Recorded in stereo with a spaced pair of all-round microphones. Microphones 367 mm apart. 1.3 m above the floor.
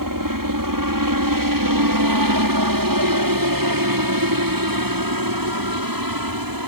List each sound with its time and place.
0.0 s a helicopter: 65° right (ahead or behind); by 6.7 s 70° right (ahead or behind)